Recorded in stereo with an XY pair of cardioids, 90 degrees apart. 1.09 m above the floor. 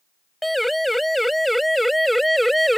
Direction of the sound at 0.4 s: Straight ahead.